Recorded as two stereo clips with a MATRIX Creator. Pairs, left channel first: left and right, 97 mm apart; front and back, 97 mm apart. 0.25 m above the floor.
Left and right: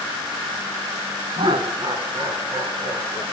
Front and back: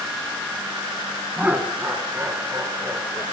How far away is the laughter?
About 2 m.